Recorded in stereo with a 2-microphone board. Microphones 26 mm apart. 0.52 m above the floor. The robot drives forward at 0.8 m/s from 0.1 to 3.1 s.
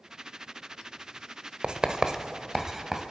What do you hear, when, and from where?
1.6 s writing: 30° right (ahead or behind), 0.7 m; by 3.0 s 15° right (ahead or behind), 1.8 m